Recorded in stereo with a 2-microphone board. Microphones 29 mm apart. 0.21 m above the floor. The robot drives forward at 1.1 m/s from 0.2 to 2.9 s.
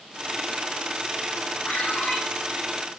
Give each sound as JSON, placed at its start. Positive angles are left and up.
{"t": 1.7, "sound": "a ringtone", "side_deg": 75, "distance_m": 7.5}